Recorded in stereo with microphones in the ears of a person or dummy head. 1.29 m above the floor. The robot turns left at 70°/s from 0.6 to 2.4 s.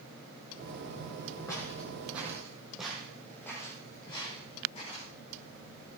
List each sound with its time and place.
1.5 s footsteps: 25° left (ahead or behind), 3 m; by 5.1 s 45° left (ahead or behind), 4.5 m